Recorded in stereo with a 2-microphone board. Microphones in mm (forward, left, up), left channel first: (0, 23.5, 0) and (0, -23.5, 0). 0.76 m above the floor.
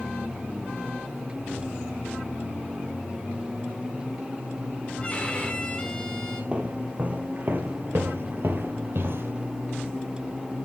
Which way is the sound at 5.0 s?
25° left (ahead or behind).